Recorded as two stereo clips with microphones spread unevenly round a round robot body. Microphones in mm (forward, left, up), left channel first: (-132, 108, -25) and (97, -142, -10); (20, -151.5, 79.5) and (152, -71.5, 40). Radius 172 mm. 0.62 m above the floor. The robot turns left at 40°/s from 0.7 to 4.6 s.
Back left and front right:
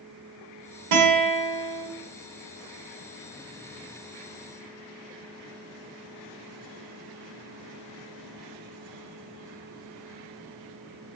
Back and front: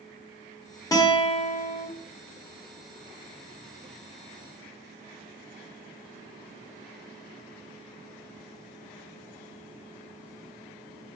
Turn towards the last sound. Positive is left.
turn(degrees=135)